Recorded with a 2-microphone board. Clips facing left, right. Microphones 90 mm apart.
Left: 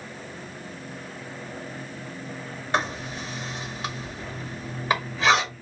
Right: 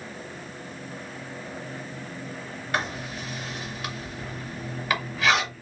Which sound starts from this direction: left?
Writing, at 2.7 s.